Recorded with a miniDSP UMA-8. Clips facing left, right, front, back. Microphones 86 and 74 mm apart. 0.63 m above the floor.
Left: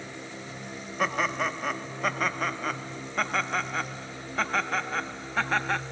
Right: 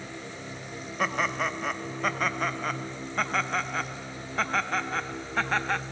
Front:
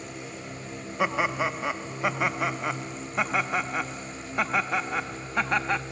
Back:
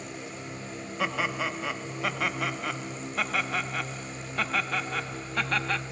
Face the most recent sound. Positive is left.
turn(degrees=0)